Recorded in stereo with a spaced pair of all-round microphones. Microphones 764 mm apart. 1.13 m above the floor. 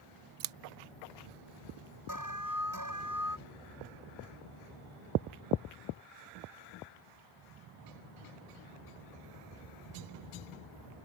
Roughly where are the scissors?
Right.